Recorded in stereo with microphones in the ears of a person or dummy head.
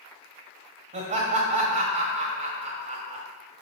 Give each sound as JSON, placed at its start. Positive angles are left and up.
{"t": 0.9, "sound": "laughter", "side_deg": -40, "distance_m": 1.9}